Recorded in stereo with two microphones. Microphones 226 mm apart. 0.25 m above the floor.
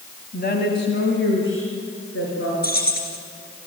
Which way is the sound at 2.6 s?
45° left (ahead or behind).